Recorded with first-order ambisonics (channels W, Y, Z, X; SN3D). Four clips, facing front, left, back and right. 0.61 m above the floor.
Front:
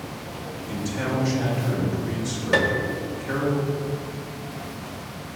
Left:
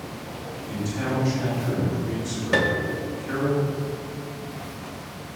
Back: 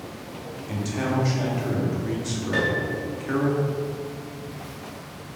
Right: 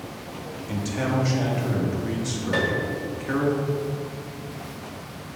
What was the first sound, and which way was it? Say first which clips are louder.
A man speaking: right 1 dB, back 1 dB; 115° right.